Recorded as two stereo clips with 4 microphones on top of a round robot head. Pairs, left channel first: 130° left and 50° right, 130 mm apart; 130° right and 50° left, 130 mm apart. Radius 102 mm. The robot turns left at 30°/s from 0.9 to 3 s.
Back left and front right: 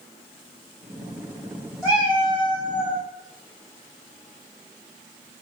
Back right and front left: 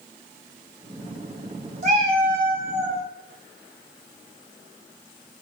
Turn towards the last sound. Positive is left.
turn(degrees=-5)